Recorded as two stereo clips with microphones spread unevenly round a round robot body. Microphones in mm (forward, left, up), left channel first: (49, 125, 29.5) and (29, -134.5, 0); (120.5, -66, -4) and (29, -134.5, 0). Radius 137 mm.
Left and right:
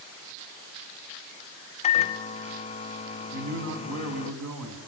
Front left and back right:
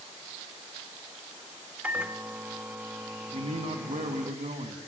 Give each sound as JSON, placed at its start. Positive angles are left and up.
{"t": 1.8, "sound": "a microwave", "azimuth_deg": 145, "distance_m": 0.7}
{"t": 3.3, "sound": "a man speaking", "azimuth_deg": -120, "distance_m": 3.5}